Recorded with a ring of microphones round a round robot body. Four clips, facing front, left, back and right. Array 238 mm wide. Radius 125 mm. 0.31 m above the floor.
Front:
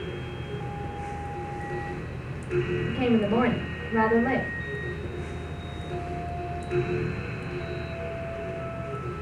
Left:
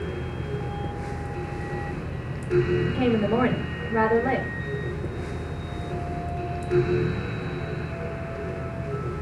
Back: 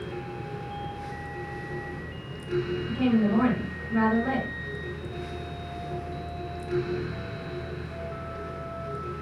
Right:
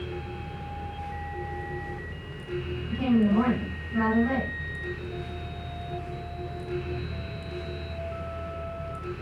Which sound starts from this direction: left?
A woman speaking, at 2.9 s.